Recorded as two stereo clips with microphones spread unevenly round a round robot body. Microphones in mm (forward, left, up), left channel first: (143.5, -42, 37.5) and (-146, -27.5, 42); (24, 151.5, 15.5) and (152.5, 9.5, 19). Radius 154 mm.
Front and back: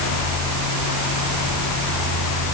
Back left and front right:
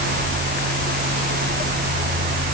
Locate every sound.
Only background noise.